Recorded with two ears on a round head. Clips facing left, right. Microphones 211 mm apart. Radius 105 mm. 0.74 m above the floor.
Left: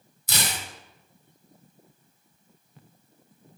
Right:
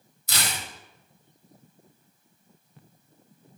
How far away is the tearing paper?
About 1.7 m.